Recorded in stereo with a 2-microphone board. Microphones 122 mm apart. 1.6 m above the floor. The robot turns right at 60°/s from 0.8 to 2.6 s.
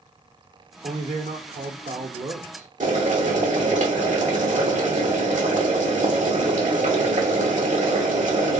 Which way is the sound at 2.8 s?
75° right (ahead or behind).